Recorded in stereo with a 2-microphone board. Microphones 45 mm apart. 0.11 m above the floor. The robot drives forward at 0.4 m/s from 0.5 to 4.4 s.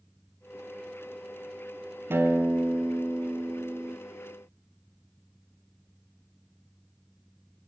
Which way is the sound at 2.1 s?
60° right (ahead or behind).